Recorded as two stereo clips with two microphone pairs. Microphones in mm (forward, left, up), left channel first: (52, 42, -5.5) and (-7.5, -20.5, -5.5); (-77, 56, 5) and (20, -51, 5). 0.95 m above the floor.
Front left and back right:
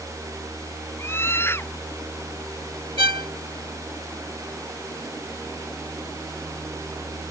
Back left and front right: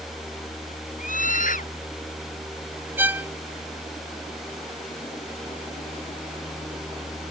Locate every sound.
1.0 s a scream: 110° left
3.0 s a violin: 125° right